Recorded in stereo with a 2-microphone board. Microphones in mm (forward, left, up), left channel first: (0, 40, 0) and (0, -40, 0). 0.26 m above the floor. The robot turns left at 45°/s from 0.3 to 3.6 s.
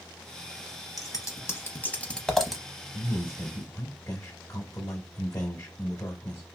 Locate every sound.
1.0 s scissors: 50° left (ahead or behind), 0.7 m; by 2.6 s 5° right (ahead or behind), 0.7 m
2.9 s a man speaking: 30° left (ahead or behind), 1.1 m; by 6.4 s 25° left (ahead or behind), 1.1 m